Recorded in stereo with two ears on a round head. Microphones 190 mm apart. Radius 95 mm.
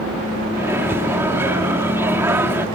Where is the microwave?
10° right (ahead or behind).